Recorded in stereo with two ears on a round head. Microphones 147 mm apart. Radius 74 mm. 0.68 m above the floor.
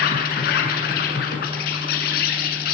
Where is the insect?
65° left (ahead or behind), 6 m.